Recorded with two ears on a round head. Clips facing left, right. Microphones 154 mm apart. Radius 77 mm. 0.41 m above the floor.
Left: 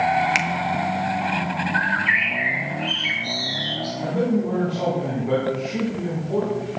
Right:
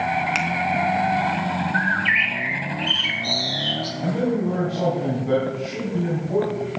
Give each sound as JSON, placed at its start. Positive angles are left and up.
{"t": 0.3, "sound": "a finger snap", "side_deg": 15, "distance_m": 0.7}
{"t": 1.7, "sound": "a bird", "side_deg": -35, "distance_m": 2.0}
{"t": 4.0, "sound": "a man speaking", "side_deg": -5, "distance_m": 3.0}